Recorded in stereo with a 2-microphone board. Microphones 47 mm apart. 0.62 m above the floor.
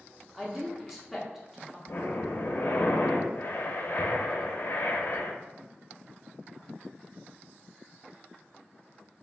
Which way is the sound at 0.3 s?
5° right (ahead or behind).